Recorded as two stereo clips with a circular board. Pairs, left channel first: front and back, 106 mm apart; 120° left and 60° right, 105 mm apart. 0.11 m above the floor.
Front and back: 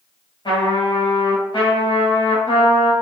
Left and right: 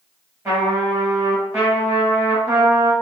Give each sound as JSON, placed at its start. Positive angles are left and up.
{"t": 0.5, "sound": "a trumpet", "azimuth_deg": -10, "distance_m": 1.5}